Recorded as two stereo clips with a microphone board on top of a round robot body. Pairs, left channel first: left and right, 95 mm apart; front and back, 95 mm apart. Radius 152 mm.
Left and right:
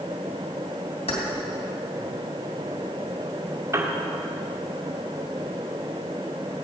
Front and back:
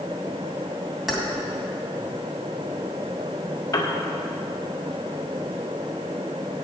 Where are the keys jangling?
95° left, 2.5 m.